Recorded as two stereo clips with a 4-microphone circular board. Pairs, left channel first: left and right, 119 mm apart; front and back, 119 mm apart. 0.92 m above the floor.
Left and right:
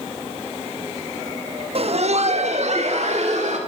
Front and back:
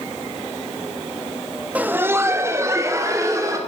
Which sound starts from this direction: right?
Laughter, at 1.8 s.